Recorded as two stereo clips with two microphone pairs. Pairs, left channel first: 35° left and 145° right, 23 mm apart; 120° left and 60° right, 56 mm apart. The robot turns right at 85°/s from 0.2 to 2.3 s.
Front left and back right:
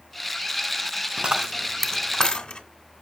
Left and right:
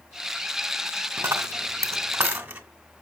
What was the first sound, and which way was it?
A dropped coin, 95° right.